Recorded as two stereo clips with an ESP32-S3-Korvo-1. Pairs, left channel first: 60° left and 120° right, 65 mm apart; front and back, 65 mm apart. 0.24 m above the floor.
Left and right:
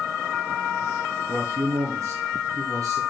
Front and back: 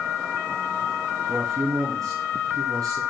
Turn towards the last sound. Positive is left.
turn(degrees=-150)